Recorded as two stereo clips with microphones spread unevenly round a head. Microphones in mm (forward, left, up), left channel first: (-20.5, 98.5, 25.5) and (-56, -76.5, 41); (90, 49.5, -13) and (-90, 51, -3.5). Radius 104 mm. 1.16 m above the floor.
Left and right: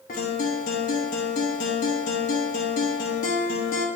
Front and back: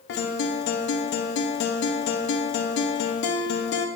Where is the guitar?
25° left, 0.8 m.